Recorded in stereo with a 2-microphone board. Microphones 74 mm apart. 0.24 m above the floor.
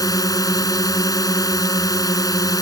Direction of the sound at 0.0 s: 55° left (ahead or behind).